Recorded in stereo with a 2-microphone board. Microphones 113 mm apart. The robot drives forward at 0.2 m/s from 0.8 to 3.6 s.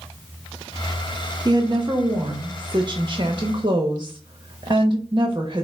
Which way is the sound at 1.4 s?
40° right (ahead or behind).